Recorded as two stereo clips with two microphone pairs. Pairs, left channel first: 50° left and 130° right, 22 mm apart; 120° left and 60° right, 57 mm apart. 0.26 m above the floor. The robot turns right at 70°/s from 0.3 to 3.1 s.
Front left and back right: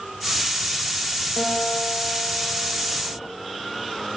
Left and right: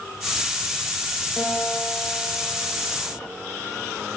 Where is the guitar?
90° left, 6.5 m; by 3.2 s 150° right, 6.5 m.